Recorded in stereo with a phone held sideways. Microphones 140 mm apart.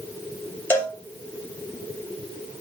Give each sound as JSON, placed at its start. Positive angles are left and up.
{"t": 0.7, "sound": "a cowbell", "side_deg": 15, "distance_m": 2.5}